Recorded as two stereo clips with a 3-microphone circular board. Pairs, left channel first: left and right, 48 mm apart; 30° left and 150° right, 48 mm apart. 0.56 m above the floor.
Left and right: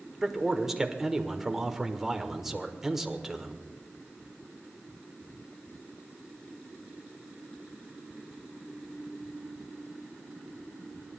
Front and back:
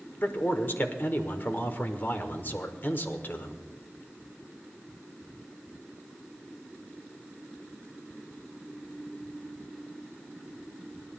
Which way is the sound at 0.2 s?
10° right.